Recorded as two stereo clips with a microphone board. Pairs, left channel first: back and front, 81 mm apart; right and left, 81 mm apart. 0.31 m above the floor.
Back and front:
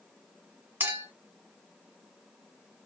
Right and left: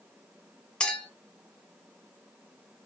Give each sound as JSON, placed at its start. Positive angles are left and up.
{"t": 0.8, "sound": "a clink", "azimuth_deg": -25, "distance_m": 0.7}